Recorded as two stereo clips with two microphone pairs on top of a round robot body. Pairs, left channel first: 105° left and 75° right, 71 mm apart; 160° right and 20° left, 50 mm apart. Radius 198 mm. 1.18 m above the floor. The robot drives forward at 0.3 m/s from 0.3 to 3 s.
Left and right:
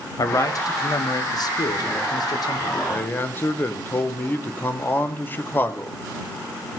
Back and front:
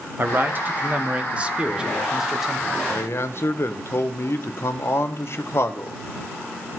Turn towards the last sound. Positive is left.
turn(degrees=165)